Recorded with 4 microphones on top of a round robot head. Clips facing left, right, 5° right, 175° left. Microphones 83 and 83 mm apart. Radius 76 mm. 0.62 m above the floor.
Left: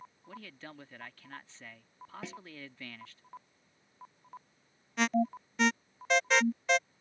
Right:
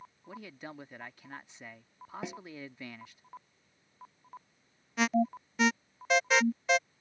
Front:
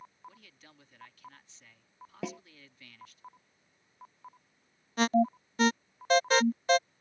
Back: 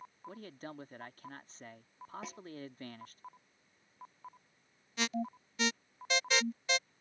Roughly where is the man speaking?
Behind right.